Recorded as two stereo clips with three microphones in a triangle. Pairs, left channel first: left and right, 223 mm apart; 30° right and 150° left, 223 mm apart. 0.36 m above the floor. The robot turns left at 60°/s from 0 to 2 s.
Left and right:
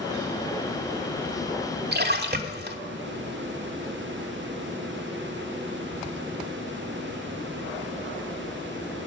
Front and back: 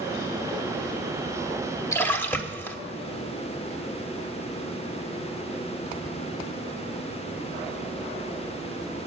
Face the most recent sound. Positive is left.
turn(degrees=-110)